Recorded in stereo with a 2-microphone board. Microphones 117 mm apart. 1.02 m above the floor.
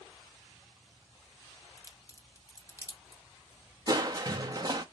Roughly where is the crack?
Left.